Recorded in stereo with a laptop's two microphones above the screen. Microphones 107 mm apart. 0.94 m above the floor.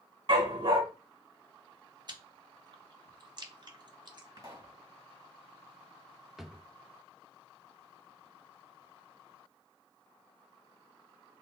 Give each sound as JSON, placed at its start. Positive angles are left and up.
{"t": 0.3, "sound": "a dog barking", "side_deg": -55, "distance_m": 1.5}
{"t": 2.1, "sound": "chewing", "side_deg": -40, "distance_m": 0.6}
{"t": 4.4, "sound": "a pop", "side_deg": -35, "distance_m": 2.0}
{"t": 6.4, "sound": "a drawer", "side_deg": -5, "distance_m": 0.6}